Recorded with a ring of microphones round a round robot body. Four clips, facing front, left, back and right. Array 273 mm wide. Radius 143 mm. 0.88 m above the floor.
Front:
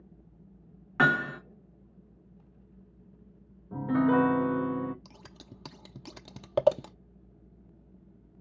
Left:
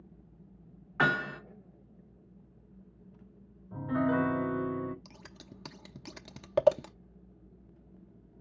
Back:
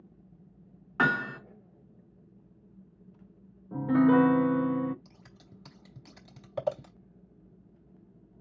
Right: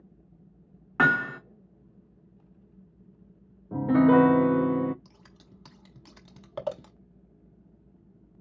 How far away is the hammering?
About 2.5 m.